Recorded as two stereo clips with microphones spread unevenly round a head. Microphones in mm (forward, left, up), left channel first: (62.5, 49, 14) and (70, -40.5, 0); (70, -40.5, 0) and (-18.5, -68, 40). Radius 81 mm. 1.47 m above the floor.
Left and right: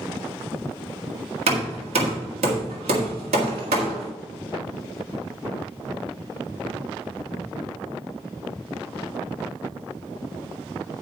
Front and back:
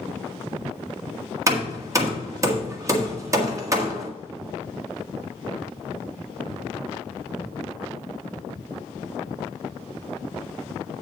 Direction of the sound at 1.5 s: 125° right.